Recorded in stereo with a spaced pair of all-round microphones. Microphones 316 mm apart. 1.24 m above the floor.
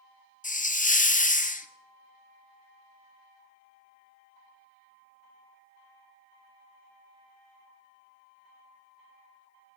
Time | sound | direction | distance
0.4 | a hiss | 25° left (ahead or behind) | 0.6 m